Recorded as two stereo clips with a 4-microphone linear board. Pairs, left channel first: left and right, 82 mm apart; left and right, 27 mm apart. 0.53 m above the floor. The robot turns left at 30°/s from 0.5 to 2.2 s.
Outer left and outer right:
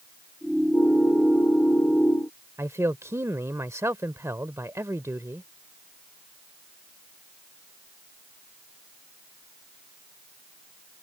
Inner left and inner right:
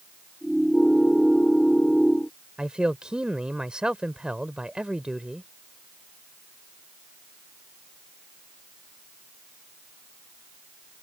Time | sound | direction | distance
2.6 | a man speaking | 35° right (ahead or behind) | ?